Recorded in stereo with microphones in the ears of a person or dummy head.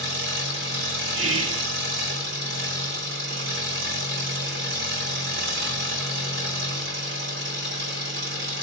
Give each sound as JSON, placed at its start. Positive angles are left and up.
{"t": 0.0, "sound": "an engine running", "side_deg": -70, "distance_m": 2.0}
{"t": 1.1, "sound": "whispering", "side_deg": -75, "distance_m": 0.8}